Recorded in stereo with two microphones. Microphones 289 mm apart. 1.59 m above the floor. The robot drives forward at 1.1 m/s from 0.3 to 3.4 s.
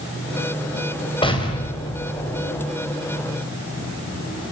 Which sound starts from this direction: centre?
An explosion, at 1.2 s.